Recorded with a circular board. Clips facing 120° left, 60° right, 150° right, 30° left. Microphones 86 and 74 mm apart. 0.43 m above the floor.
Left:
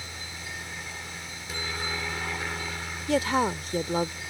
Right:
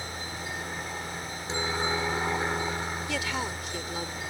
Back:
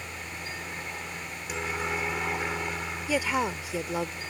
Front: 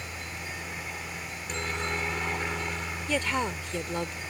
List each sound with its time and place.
0.0 s a helicopter: 75° right
3.1 s a woman speaking: 135° left